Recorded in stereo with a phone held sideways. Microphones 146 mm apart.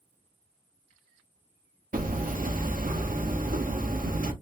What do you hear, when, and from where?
1.9 s hammering: 80° right, 0.6 m